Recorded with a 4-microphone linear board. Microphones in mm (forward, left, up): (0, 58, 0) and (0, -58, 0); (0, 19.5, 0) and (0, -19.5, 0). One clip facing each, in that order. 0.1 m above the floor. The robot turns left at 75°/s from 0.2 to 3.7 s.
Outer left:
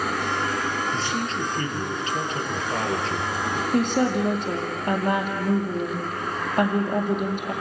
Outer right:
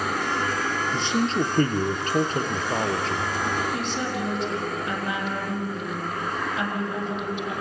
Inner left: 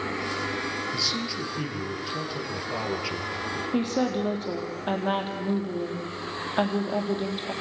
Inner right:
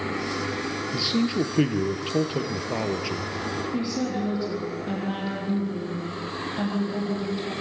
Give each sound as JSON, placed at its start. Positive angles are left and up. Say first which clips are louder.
{"t": 0.9, "sound": "a man speaking", "louder": "outer right 3 dB, inner right 5 dB", "azimuth_deg": -20, "distance_m": 2.0}
{"t": 3.7, "sound": "a woman speaking", "louder": "outer left 7 dB, inner left 4 dB", "side_deg": 55, "distance_m": 4.0}